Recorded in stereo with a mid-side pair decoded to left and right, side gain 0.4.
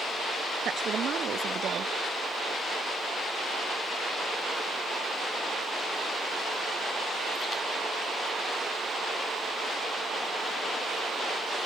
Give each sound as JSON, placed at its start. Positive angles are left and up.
{"t": 0.7, "sound": "a woman speaking", "azimuth_deg": -60}